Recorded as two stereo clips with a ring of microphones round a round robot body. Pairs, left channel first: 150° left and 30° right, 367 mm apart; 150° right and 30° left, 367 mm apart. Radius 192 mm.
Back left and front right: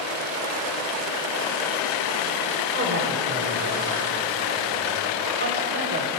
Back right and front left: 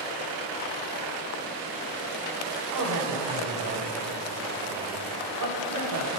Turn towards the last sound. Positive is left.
turn(degrees=20)